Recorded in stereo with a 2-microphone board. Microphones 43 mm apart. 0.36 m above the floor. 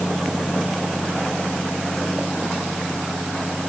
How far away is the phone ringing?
No phone ringing in this recording.